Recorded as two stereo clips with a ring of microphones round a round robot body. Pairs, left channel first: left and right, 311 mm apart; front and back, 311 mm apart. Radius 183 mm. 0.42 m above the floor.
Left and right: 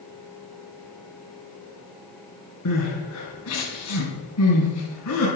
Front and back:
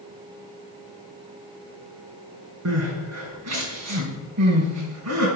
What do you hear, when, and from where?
2.6 s crying: 140° left, 3.5 m